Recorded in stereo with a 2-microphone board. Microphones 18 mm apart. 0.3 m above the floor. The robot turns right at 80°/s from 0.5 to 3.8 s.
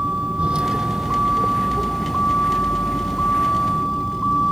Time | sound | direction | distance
0.0 | a vehicle | 90° right | ?